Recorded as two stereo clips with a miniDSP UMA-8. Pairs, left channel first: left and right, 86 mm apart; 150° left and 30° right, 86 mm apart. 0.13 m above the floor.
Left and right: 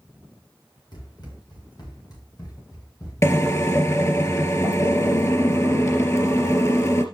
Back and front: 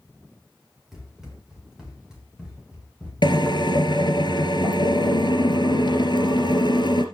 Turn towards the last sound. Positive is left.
turn(degrees=140)